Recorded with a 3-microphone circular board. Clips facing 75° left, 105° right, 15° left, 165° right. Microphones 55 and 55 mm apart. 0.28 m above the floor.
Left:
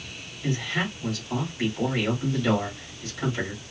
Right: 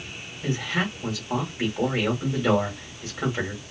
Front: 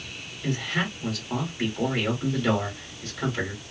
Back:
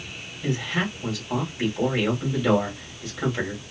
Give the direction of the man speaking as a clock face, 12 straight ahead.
3 o'clock.